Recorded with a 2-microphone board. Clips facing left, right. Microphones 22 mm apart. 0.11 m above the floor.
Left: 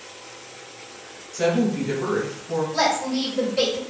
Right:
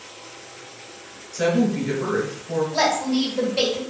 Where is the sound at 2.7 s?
15° right (ahead or behind), 1.7 m.